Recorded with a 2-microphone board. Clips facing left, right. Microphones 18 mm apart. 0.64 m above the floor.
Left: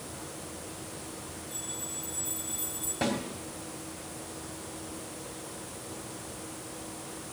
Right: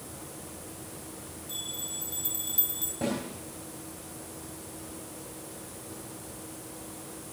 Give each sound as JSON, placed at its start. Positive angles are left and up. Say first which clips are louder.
{"t": 1.5, "sound": "a bell", "louder": "right 4 dB", "side_deg": -85, "distance_m": 3.5}
{"t": 3.0, "sound": "a snare drum", "louder": "left 1 dB", "side_deg": 50, "distance_m": 3.0}